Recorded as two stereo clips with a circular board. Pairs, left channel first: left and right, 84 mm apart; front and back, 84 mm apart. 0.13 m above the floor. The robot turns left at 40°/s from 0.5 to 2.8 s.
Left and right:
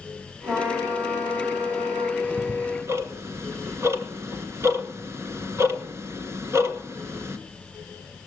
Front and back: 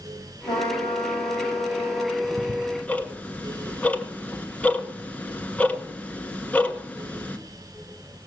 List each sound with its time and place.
0.5 s a trumpet: 10° right, 4.5 m; by 2.1 s 75° right, 4.5 m
2.2 s ticking: 40° right, 1.1 m; by 7.4 s 60° right, 1.1 m